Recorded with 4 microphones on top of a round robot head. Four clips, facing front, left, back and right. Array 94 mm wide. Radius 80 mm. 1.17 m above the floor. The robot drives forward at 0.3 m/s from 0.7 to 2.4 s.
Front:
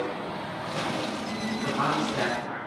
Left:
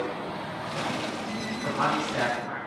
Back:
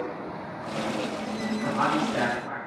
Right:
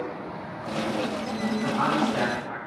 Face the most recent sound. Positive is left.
turn(degrees=-165)